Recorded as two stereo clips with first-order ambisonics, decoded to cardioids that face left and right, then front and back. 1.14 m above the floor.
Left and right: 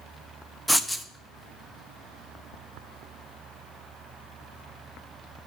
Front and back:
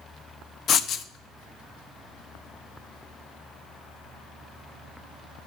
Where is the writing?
5° left, 0.6 m.